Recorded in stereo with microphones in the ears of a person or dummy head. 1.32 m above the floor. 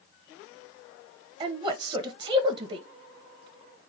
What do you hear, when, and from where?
1.4 s a woman speaking: 30° right (ahead or behind), 1.0 m